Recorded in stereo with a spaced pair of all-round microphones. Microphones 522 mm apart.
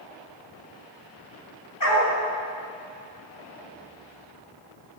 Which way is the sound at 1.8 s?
40° left (ahead or behind).